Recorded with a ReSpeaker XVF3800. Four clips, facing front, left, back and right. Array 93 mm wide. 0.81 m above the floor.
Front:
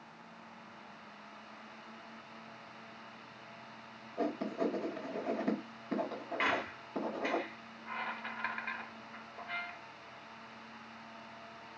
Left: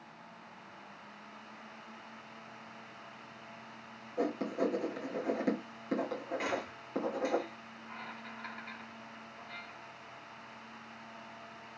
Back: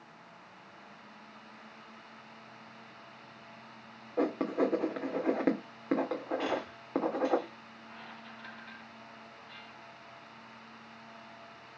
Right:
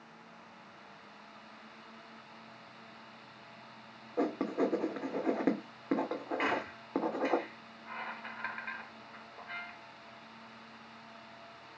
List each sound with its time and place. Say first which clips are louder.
4.2 s writing: right 1 dB, back 5 dB; 150° right, 3 m
6.4 s a squeak: right 3 dB, even; 35° right, 0.9 m